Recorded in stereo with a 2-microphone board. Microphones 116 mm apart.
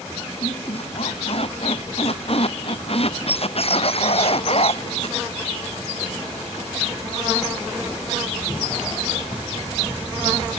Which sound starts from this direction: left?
A squeak, at 0.4 s.